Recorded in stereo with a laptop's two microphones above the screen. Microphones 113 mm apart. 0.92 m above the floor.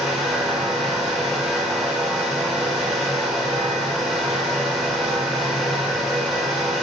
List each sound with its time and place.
0.0 s a fan: centre (ahead or behind), 3 m